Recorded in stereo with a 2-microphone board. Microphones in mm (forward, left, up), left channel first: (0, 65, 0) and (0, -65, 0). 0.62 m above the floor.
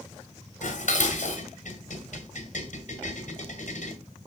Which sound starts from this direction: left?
Dishes clattering, at 0.6 s.